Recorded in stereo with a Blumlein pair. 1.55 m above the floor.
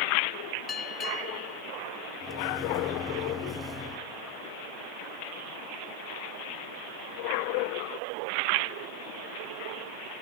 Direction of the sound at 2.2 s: 10° left.